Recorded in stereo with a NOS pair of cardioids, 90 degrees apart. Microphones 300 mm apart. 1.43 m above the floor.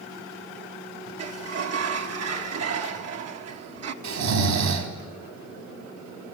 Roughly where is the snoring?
Ahead right.